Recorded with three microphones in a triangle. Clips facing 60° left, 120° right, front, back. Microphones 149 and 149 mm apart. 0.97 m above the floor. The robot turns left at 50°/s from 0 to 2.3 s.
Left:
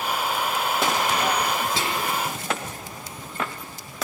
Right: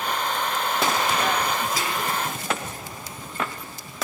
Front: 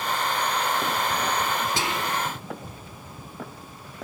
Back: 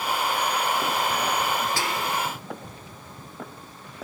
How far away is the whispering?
About 0.7 m.